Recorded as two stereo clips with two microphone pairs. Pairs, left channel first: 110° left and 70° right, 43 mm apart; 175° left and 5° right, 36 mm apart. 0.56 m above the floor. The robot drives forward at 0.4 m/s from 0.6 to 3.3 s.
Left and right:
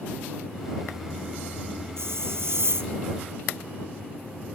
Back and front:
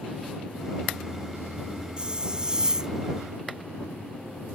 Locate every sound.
2.0 s a hiss: 70° right; by 2.9 s 75° right